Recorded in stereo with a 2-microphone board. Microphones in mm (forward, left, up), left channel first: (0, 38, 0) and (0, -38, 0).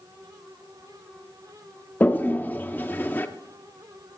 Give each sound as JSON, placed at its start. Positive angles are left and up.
{"t": 2.0, "sound": "a toilet flushing", "side_deg": 25, "distance_m": 0.7}